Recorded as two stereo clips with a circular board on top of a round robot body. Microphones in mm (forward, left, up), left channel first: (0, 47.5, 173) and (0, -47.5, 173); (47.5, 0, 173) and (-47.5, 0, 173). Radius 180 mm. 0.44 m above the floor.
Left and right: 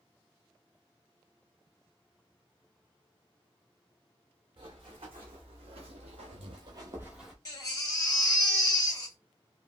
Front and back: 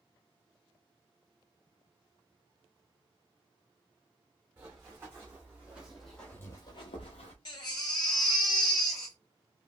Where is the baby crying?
40° left, 2.5 m.